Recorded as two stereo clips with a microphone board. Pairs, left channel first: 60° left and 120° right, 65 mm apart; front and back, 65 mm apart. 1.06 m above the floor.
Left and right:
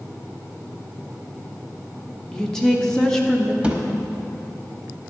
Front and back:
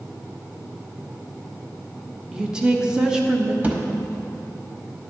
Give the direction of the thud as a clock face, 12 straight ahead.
5 o'clock.